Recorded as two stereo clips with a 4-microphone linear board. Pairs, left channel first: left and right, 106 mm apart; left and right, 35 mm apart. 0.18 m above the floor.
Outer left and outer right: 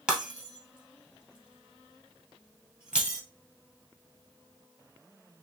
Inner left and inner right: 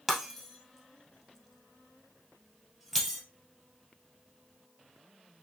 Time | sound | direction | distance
0.1 | breaking glass | 10° right (ahead or behind) | 1.7 m